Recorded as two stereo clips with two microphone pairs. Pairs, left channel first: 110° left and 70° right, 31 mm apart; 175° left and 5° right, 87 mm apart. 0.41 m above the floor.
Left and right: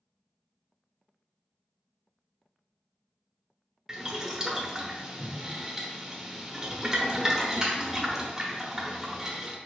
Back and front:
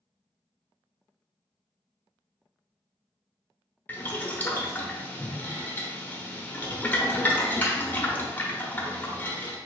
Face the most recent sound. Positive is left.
turn(degrees=-130)